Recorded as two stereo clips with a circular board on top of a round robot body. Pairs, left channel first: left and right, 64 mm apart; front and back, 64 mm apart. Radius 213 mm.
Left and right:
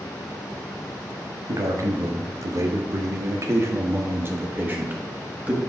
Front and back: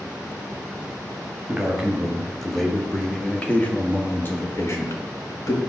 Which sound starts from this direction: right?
A man speaking, at 1.5 s.